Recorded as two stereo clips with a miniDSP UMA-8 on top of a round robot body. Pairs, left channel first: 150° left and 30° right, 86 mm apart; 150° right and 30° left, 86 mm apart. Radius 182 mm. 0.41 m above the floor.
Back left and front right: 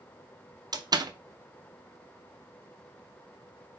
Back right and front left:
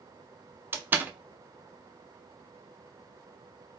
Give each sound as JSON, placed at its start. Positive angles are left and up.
{"t": 0.7, "sound": "a door slam", "azimuth_deg": -30, "distance_m": 0.6}